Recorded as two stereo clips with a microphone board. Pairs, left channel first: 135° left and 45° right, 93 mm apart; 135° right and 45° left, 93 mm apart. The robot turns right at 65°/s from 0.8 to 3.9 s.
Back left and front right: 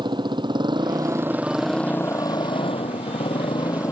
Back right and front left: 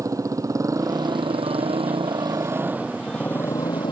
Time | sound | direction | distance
0.0 | a motorcycle | 10° right | ?